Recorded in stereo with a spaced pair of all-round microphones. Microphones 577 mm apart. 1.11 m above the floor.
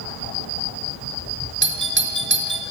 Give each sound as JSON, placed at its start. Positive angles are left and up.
{"t": 1.6, "sound": "a doorbell", "side_deg": -20, "distance_m": 0.7}